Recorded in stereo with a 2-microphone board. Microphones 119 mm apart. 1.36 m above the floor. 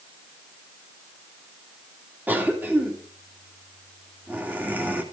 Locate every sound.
2.3 s a cough: 15° right (ahead or behind), 2.0 m